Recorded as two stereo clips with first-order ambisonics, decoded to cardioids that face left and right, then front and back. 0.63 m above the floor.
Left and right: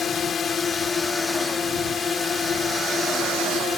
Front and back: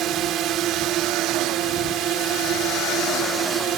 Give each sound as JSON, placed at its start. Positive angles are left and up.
{"t": 0.0, "sound": "a drone", "azimuth_deg": 150}